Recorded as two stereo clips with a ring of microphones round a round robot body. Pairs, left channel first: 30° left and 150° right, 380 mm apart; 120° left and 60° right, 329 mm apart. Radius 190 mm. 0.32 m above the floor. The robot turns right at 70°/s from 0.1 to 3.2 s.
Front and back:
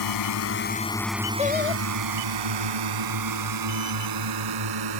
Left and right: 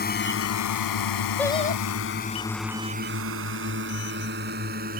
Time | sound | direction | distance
0.0 | a drone | 60° left | ?
1.4 | singing | 35° left | ?